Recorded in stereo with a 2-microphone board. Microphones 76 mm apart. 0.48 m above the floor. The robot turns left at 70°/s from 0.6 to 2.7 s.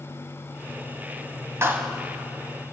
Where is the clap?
35° right (ahead or behind), 2.5 m; by 1.9 s 15° right (ahead or behind), 2.5 m.